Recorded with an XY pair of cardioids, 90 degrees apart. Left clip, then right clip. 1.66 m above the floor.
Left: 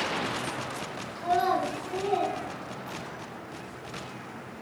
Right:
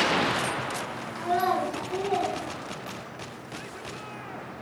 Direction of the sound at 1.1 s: 35° right.